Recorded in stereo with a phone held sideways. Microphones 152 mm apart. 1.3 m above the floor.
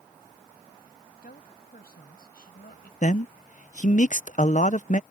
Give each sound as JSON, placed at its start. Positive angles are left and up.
{"t": 1.2, "sound": "a woman speaking", "side_deg": 85}
{"t": 3.0, "sound": "a man speaking", "side_deg": 55}